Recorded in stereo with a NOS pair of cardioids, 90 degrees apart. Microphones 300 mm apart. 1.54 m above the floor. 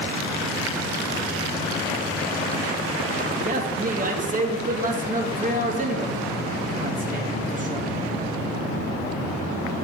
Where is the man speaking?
30° right, 2.0 m.